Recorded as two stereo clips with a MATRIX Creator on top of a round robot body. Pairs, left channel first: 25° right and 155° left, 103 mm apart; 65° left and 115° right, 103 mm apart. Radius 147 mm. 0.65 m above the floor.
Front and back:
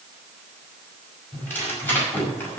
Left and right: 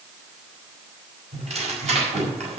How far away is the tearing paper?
About 5.5 m.